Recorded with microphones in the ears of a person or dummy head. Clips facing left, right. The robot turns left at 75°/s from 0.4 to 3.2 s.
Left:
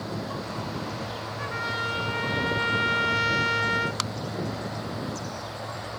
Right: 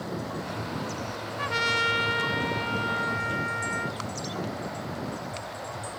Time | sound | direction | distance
1.4 | a trumpet | 100° right | 0.8 m